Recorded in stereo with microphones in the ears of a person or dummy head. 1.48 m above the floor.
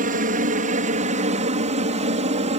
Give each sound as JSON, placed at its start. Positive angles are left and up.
{"t": 0.0, "sound": "a helicopter", "side_deg": -45}